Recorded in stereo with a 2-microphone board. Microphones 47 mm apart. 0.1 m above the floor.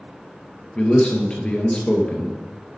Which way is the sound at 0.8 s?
25° left (ahead or behind).